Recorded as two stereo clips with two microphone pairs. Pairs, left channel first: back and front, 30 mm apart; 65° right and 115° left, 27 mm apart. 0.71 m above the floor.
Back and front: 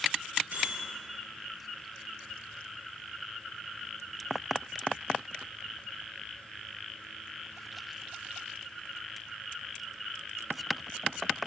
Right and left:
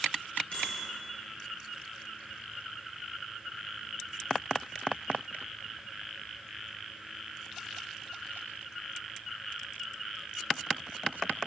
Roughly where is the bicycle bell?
Ahead.